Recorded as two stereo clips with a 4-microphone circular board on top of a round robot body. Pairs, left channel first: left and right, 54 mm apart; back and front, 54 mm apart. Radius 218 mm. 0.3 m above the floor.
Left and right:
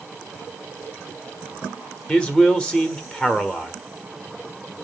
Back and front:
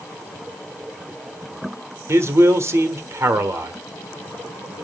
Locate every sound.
2.1 s a man speaking: 25° left, 1.5 m